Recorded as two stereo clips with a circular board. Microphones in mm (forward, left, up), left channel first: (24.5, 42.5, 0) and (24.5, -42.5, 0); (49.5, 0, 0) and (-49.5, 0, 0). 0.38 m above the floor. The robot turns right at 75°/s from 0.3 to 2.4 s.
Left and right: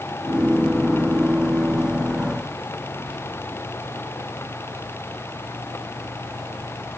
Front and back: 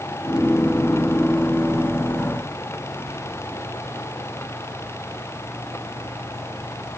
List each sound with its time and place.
3.1 s whispering: 175° left, 4.5 m